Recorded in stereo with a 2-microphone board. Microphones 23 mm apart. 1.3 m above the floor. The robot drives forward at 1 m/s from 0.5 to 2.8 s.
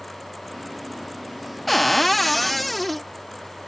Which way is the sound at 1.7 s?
10° left (ahead or behind).